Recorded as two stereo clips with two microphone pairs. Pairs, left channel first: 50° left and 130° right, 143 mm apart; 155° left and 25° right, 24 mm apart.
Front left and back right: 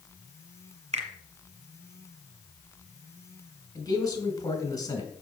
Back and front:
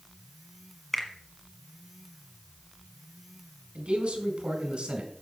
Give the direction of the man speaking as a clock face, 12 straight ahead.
12 o'clock.